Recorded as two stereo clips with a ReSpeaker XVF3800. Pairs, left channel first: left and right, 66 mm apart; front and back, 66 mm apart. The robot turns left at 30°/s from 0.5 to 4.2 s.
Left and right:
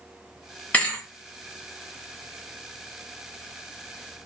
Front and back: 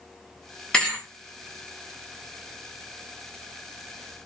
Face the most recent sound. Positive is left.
turn(degrees=-45)